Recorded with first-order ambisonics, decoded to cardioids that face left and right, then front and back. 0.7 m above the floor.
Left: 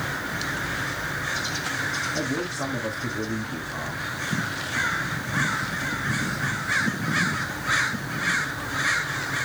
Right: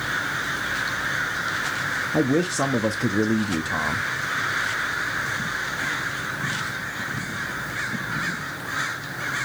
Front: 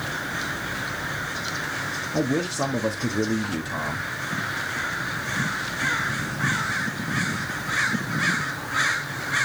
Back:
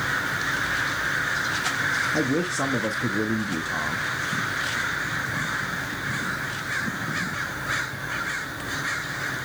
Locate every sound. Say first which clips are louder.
2.1 s a man speaking: right 6 dB, back 1 dB; 90° right, 0.9 m